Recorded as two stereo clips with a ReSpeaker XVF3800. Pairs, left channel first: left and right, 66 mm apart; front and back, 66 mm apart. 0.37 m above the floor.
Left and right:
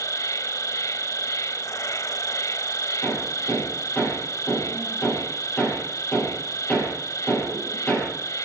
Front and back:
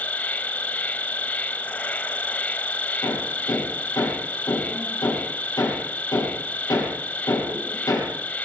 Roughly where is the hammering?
Ahead left.